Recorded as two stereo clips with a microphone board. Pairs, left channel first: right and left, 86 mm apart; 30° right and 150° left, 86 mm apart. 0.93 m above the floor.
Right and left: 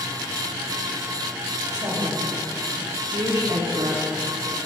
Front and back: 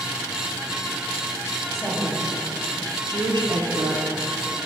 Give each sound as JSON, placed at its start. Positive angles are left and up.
{"t": 1.7, "sound": "a woman speaking", "azimuth_deg": 50, "distance_m": 1.3}